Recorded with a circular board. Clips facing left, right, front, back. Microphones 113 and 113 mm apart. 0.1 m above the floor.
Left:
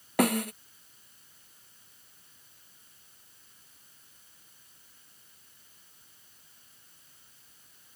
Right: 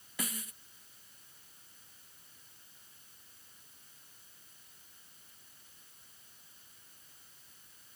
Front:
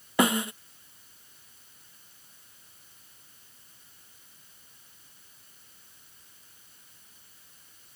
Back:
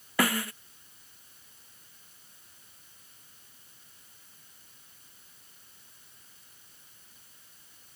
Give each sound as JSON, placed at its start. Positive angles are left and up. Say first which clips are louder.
{"t": 0.2, "sound": "a snare drum", "louder": "left 18 dB, front 4 dB", "azimuth_deg": 70}